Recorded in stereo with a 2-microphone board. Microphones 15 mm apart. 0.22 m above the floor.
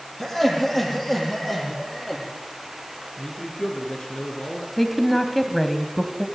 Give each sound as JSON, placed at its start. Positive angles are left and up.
{"t": 0.2, "sound": "laughter", "side_deg": 5, "distance_m": 8.5}
{"t": 3.2, "sound": "a man speaking", "side_deg": 55, "distance_m": 3.5}
{"t": 4.8, "sound": "a woman speaking", "side_deg": 0, "distance_m": 1.5}